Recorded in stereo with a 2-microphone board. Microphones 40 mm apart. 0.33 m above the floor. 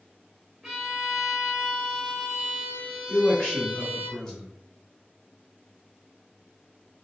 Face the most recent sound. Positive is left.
turn(degrees=15)  # may be behind; listen again after turning